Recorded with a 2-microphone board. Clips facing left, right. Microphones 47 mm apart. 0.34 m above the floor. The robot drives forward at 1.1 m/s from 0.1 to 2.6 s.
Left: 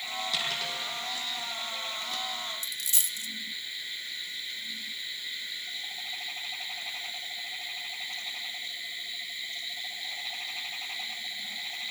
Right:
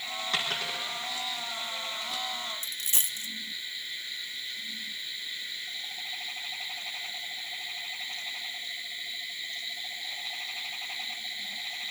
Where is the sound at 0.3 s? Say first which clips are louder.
Right 3 dB; 35° right (ahead or behind), 6.5 m.